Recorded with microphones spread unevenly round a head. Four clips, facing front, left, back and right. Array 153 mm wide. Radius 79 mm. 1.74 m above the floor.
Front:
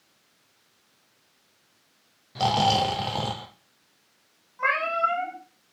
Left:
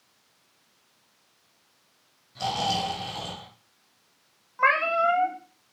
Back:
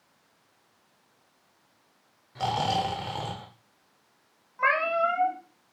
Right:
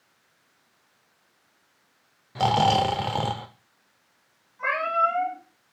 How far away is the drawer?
I don't hear a drawer.